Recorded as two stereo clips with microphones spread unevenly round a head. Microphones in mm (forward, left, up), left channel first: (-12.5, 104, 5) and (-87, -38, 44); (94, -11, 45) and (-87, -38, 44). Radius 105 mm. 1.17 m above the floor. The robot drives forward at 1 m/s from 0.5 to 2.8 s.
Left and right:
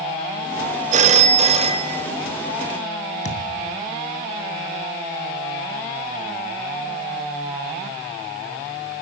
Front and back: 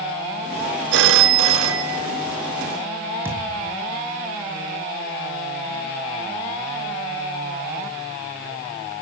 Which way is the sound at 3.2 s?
110° left.